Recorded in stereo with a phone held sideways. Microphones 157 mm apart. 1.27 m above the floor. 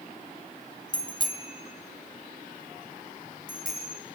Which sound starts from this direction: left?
A bicycle bell, at 0.9 s.